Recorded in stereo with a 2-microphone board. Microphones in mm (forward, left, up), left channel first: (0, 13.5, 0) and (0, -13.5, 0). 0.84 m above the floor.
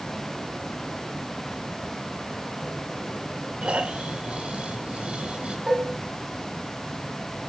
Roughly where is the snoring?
Right.